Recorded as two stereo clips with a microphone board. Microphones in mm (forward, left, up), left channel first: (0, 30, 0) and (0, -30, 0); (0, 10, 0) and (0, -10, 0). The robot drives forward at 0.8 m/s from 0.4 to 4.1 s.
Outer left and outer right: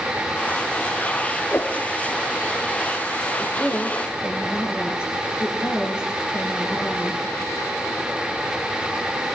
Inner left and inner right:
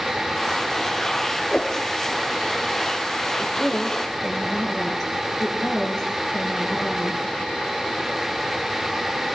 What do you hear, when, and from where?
1.5 s a whoosh: 30° left (ahead or behind), 4.5 m
3.4 s a woman speaking: 15° right (ahead or behind), 7 m